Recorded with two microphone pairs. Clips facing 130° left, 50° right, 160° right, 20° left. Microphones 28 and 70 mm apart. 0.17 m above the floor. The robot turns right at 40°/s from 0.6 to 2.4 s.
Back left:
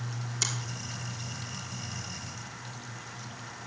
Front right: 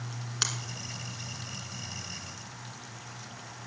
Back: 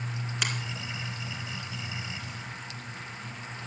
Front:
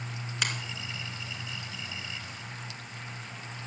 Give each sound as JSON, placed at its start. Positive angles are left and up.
{"t": 0.4, "sound": "a finger snap", "azimuth_deg": -75, "distance_m": 2.0}